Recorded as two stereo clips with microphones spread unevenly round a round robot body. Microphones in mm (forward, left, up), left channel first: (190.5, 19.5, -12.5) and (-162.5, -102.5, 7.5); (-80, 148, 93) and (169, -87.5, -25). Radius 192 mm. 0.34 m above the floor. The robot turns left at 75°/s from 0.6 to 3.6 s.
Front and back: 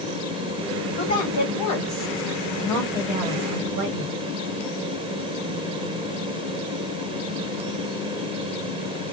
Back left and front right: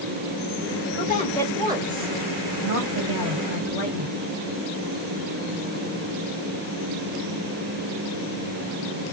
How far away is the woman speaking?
About 1.9 m.